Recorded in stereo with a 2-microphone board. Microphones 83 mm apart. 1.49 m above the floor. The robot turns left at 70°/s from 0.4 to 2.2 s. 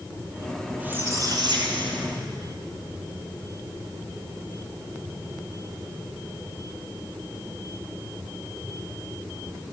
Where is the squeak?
15° right, 4.5 m; by 2.6 s 115° right, 4.5 m.